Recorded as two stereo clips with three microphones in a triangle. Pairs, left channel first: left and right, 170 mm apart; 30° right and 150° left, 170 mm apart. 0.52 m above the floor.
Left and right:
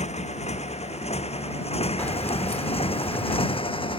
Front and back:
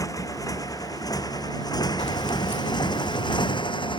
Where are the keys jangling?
10° left.